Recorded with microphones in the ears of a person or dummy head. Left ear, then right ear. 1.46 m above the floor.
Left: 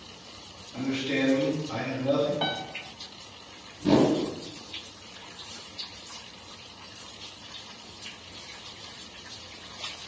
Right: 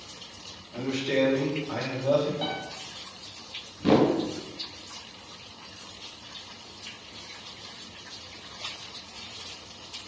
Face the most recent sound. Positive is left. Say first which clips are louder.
# right 1 dB
turn(degrees=-30)  # may be behind; listen again after turning